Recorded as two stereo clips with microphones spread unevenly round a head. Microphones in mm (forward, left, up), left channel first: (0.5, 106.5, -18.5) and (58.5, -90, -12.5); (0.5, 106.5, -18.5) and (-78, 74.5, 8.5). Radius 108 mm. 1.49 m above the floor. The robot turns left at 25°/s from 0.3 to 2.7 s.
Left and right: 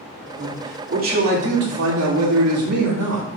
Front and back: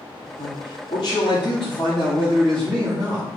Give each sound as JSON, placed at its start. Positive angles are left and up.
{"t": 0.4, "sound": "a man speaking", "azimuth_deg": -10, "distance_m": 3.0}